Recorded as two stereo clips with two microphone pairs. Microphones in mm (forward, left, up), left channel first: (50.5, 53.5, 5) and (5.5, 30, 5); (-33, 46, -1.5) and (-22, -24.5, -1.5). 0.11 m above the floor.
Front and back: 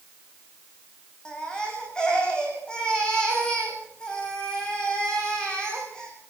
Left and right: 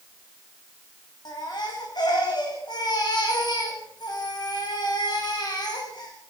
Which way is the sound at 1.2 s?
100° left.